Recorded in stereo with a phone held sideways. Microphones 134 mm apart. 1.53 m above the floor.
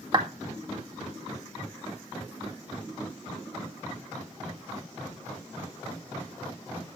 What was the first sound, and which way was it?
A clap, 35° right (ahead or behind).